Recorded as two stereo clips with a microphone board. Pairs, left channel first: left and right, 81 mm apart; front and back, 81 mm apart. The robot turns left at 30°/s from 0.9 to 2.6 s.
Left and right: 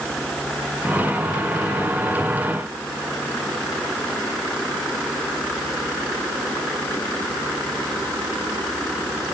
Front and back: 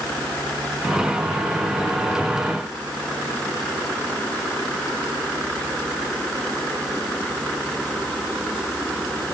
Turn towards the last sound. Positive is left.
No sound to turn to.